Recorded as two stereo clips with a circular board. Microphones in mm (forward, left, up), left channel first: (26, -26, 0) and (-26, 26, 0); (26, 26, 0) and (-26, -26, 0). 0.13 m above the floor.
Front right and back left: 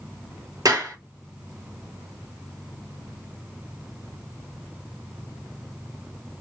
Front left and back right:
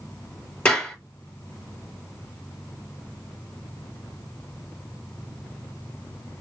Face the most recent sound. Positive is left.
turn(degrees=115)